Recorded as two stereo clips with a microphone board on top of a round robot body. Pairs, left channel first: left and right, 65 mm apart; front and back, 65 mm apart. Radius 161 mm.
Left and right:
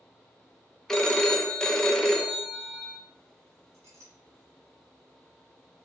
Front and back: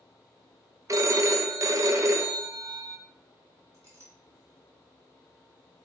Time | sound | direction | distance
0.9 | a phone ringing | 170° left | 0.6 m
3.7 | a clink | 135° right | 1.4 m